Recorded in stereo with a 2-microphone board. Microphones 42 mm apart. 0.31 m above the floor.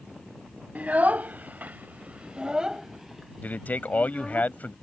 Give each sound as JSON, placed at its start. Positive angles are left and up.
{"t": 0.8, "sound": "a child speaking", "side_deg": -40}
{"t": 3.4, "sound": "a man speaking", "side_deg": 45}